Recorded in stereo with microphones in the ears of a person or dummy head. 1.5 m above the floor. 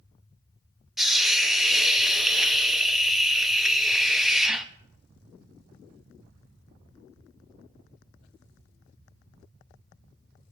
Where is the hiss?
Centre (ahead or behind), 0.9 m.